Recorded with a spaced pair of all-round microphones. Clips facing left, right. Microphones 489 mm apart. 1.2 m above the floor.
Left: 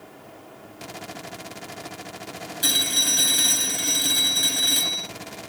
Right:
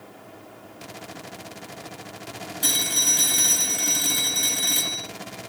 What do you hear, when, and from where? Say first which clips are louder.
2.6 s a phone ringing: left 1 dB; 15° right (ahead or behind), 8 m